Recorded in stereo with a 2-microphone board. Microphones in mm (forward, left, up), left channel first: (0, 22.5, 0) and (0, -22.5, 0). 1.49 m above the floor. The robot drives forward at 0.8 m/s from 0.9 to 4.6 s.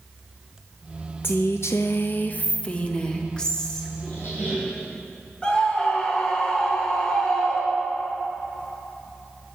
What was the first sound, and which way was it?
A woman speaking, 55° left (ahead or behind).